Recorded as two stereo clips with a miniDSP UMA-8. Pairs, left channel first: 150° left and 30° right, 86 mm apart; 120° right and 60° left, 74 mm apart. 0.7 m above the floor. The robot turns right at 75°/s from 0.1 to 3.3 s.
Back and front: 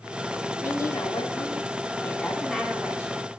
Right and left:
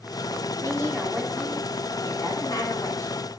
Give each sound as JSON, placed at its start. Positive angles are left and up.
{"t": 0.6, "sound": "a woman speaking", "azimuth_deg": 100, "distance_m": 1.9}